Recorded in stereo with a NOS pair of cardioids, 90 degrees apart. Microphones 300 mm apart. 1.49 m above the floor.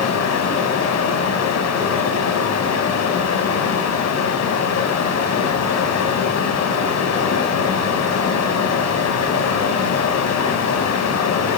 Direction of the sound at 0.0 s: 65° left.